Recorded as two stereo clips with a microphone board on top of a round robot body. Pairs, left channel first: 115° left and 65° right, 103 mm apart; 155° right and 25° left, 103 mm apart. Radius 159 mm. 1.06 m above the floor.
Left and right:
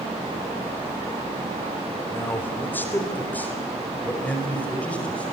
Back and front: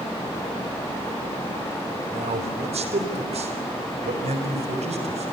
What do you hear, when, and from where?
2.1 s a man speaking: 40° left, 3 m; by 5.3 s 35° left, 5.5 m